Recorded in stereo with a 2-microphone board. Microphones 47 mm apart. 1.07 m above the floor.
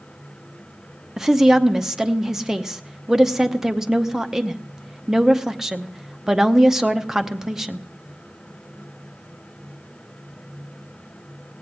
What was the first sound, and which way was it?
A woman speaking, 10° right (ahead or behind).